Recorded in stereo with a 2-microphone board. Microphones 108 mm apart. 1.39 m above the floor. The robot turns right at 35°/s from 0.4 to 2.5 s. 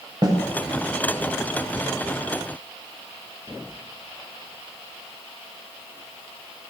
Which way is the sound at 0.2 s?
40° right (ahead or behind).